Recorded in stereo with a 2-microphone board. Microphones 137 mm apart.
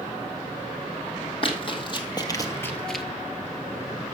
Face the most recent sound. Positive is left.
turn(degrees=-5)  # may be behind; listen again after turning